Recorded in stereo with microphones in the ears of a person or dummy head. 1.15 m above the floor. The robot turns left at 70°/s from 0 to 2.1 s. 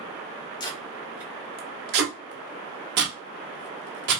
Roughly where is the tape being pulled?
Left.